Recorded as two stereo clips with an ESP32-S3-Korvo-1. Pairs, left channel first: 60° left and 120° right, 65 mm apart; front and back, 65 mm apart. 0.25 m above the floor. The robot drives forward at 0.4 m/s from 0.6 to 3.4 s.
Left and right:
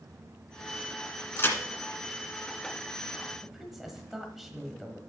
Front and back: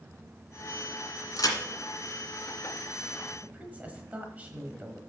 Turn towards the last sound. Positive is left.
turn(degrees=155)